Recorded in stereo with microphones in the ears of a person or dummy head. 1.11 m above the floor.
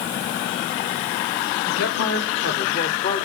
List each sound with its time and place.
1.6 s a man speaking: 65° left (ahead or behind), 1.7 m; by 3.3 s 30° left (ahead or behind), 1.3 m